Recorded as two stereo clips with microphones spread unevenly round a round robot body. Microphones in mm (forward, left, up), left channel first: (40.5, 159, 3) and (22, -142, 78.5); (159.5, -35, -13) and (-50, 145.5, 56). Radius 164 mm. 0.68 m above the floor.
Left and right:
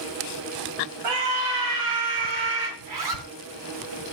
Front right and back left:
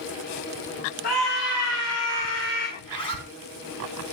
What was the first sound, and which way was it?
A scream, 100° right.